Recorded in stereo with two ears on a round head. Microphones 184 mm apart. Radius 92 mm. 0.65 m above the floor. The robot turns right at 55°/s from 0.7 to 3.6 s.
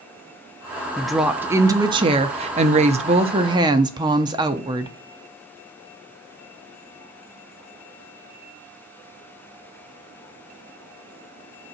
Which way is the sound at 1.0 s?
175° left.